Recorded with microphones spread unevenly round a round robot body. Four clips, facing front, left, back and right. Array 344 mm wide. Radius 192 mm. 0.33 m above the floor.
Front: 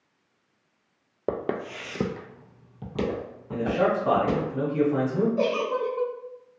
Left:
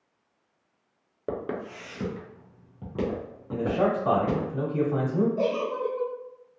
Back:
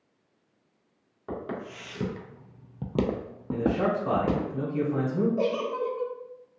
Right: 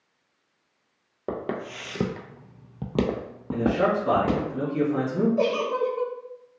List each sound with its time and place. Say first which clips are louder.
1.3 s footsteps: right 1 dB, front 6 dB; 5° right, 0.8 m; by 4.5 s 130° right, 1.3 m
3.5 s a man speaking: right 2 dB, front 2 dB; 65° left, 1.4 m
5.4 s a giggle: right 3 dB, front 2 dB; 65° right, 0.8 m